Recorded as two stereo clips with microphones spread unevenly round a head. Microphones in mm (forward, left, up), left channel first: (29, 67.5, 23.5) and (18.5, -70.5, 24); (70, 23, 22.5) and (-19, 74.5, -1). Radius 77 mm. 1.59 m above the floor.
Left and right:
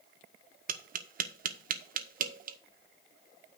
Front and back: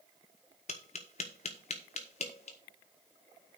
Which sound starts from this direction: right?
Tapping, at 0.7 s.